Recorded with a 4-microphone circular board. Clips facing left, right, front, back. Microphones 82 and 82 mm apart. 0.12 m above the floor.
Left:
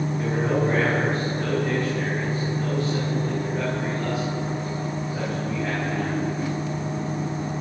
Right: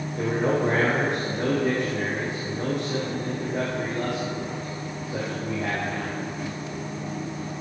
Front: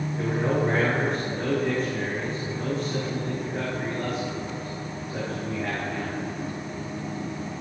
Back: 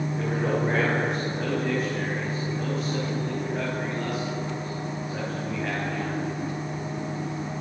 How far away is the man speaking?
About 6.5 m.